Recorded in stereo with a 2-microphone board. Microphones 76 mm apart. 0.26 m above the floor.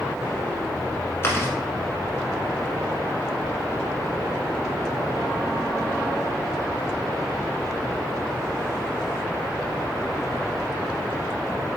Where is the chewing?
35° left (ahead or behind), 1.3 m.